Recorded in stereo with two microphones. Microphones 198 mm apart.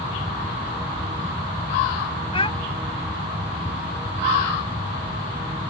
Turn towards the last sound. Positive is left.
turn(degrees=30)  # may be behind; listen again after turning